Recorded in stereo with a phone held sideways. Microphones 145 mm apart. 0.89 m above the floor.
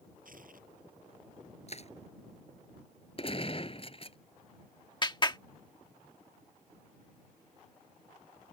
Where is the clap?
30° left (ahead or behind).